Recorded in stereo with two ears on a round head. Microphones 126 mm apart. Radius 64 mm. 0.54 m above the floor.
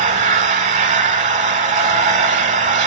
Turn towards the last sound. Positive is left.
turn(degrees=-60)  # may be behind; listen again after turning